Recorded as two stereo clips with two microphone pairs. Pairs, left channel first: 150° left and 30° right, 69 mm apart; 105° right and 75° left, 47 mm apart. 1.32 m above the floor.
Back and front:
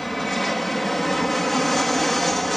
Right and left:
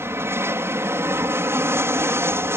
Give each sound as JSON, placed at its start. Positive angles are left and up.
{"t": 0.0, "sound": "an aircraft", "azimuth_deg": 60}